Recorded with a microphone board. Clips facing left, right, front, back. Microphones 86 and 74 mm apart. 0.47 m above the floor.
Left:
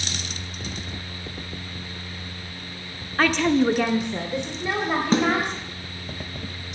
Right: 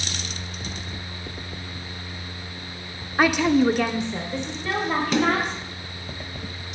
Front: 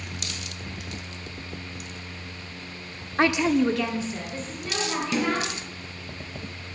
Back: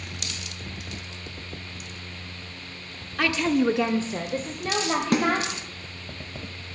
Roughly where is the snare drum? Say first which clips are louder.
Left 1 dB, back 3 dB; behind left.